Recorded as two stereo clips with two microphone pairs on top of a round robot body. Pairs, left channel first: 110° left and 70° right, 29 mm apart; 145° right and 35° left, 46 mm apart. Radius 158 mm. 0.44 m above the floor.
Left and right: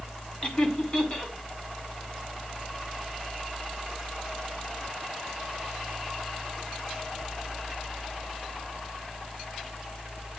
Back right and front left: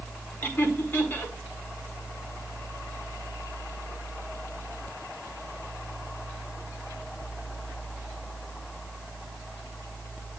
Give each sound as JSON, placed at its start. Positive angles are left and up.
{"t": 0.4, "sound": "laughter", "azimuth_deg": 165, "distance_m": 2.5}